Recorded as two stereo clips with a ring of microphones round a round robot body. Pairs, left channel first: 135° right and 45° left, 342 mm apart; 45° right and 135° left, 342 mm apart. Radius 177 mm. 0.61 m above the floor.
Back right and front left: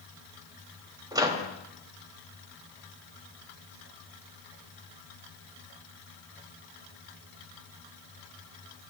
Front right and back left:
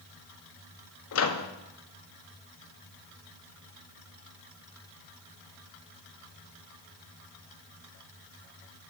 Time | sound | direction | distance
1.1 | a microwave | 30° right | 0.7 m